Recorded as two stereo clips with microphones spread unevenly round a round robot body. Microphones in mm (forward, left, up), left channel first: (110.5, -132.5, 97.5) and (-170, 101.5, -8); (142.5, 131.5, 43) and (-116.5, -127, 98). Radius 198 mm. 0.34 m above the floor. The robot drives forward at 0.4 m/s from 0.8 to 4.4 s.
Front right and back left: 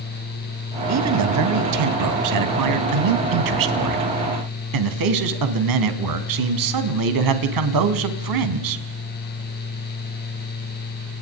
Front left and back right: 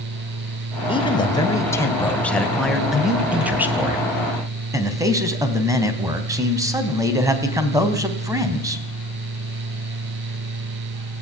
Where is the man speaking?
115° left, 2.5 m; by 8.8 s 140° left, 3 m.